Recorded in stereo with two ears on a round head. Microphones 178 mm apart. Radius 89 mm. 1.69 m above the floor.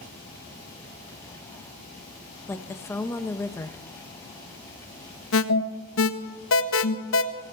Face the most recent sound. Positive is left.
turn(degrees=75)  # may be behind; listen again after turning